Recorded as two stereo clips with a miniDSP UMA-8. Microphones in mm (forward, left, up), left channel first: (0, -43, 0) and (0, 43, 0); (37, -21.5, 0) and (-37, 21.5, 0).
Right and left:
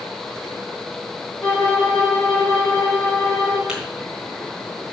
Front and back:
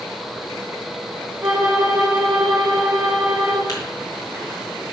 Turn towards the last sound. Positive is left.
turn(degrees=10)